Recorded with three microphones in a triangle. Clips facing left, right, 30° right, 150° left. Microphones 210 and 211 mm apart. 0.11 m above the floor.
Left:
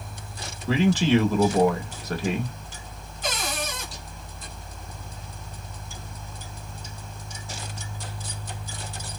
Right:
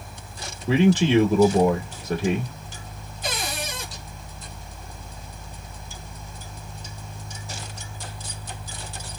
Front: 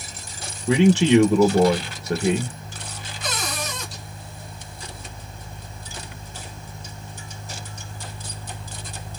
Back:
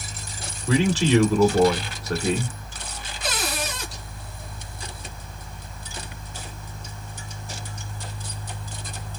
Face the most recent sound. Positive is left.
turn(degrees=-140)